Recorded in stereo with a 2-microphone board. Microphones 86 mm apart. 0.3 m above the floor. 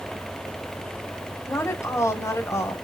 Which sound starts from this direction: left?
A woman speaking, at 1.5 s.